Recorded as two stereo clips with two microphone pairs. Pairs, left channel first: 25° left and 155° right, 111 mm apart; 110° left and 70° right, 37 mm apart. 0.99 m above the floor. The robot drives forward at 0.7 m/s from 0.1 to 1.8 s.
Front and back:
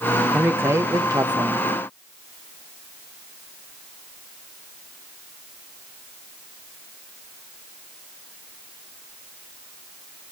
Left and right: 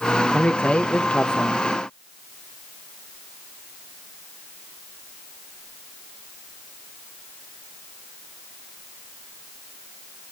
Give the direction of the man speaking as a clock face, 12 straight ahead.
7 o'clock.